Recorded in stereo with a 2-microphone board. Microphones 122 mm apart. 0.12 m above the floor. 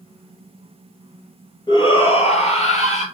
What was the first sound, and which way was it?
A shout, 35° left (ahead or behind).